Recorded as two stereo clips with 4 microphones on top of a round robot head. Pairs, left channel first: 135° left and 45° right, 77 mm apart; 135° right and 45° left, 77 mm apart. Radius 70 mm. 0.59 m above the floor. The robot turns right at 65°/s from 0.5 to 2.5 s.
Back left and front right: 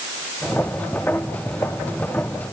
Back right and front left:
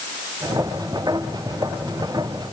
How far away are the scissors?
I don't hear scissors.